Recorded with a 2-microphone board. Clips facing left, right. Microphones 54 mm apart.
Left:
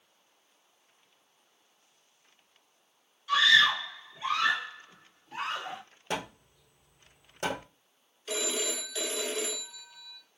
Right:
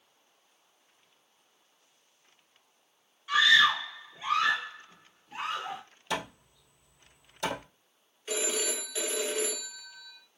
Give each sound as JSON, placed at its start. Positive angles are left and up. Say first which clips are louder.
{"t": 3.3, "sound": "a scream", "louder": "even", "side_deg": -20, "distance_m": 1.2}
{"t": 6.1, "sound": "hammering", "louder": "right 1 dB", "side_deg": 40, "distance_m": 1.7}
{"t": 8.3, "sound": "a phone ringing", "louder": "right 1 dB", "side_deg": -20, "distance_m": 1.0}